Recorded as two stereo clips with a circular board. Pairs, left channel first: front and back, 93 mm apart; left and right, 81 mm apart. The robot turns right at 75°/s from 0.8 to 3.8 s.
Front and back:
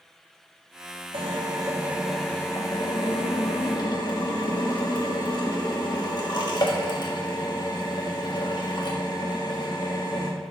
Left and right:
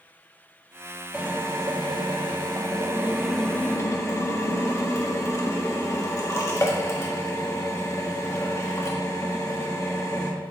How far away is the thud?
No thud in this recording.